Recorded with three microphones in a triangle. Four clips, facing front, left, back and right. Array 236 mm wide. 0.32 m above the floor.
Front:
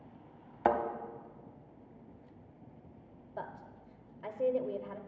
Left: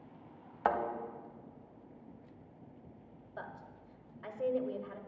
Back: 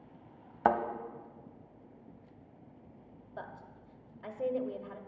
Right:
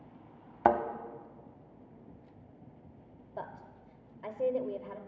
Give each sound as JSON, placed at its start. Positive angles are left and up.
{"t": 0.7, "sound": "a thud", "azimuth_deg": -115, "distance_m": 0.8}
{"t": 3.4, "sound": "a woman speaking", "azimuth_deg": -70, "distance_m": 0.9}